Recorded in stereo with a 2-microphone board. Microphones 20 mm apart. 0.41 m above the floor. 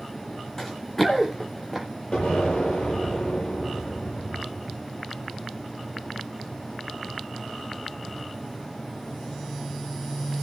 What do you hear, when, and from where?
0.6 s running footsteps: 25° left (ahead or behind), 1.8 m; by 1.9 s centre (ahead or behind), 2.5 m
2.1 s an explosion: 50° left (ahead or behind), 8 m